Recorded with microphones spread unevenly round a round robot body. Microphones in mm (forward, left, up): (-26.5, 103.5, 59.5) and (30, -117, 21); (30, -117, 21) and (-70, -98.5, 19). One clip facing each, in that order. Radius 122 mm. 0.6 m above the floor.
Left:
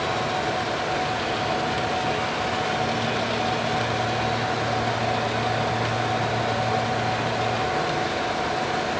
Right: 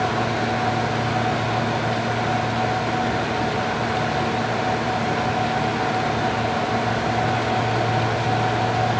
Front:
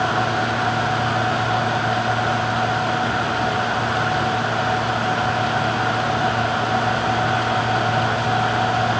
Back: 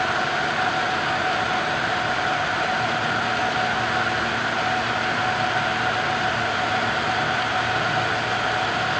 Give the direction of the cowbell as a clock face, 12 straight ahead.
I don't hear a cowbell.